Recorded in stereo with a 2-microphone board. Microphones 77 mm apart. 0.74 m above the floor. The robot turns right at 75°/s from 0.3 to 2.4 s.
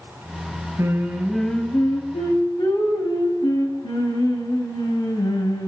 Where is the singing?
40° right, 2 m; by 5.7 s 80° left, 2 m.